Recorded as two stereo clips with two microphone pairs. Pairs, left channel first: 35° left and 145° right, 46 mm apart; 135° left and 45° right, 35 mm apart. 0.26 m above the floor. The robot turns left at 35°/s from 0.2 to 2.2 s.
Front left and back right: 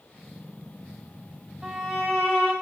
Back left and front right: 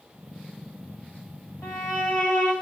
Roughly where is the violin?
Behind left.